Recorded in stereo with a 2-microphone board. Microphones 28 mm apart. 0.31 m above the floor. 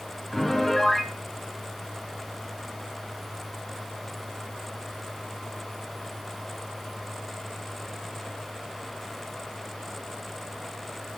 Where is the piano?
10° left (ahead or behind), 4 m.